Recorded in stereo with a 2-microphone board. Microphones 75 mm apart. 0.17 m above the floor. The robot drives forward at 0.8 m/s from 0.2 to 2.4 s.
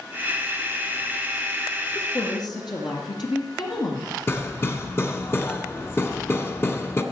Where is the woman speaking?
65° left (ahead or behind), 3 m.